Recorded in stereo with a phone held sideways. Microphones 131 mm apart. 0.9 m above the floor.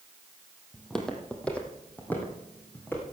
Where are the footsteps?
Centre (ahead or behind), 1.6 m; by 3.0 s 15° left (ahead or behind), 3 m.